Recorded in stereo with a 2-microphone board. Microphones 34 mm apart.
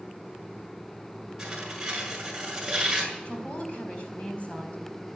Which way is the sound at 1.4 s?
15° right (ahead or behind).